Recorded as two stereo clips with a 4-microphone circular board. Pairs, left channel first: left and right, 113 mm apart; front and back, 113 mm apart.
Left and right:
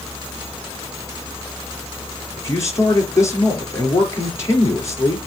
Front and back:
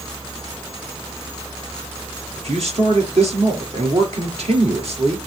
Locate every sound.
2.4 s a man speaking: 155° left, 4.5 m